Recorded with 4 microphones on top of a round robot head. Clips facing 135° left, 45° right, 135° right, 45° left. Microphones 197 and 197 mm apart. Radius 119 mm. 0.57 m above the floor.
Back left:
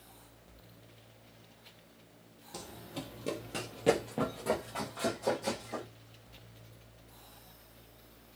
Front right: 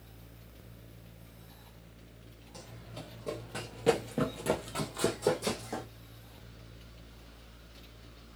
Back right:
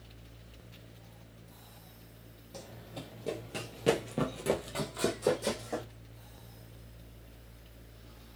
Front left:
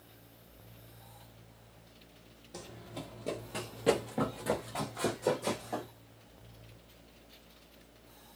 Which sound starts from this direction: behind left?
Running footsteps, at 2.5 s.